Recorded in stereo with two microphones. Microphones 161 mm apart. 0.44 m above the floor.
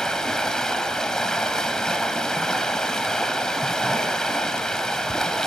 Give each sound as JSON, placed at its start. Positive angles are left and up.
{"t": 0.0, "sound": "running water", "side_deg": 5, "distance_m": 1.0}